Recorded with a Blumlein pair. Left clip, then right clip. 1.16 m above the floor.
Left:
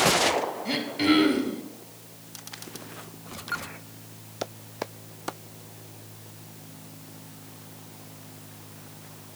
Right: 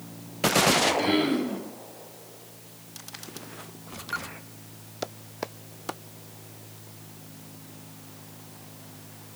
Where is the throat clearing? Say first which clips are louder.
Right 3 dB; 20° left, 1.5 m.